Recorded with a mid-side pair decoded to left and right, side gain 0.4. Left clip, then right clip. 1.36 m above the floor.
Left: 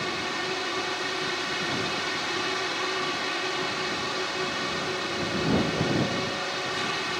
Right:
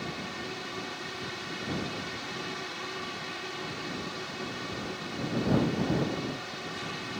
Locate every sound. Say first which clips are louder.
0.0 s a fan: left 8 dB; 65° left